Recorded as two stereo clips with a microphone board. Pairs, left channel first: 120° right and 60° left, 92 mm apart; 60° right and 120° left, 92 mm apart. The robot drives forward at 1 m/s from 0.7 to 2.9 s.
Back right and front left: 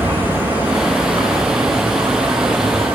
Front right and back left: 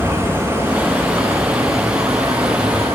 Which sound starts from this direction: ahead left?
An insect, at 0.0 s.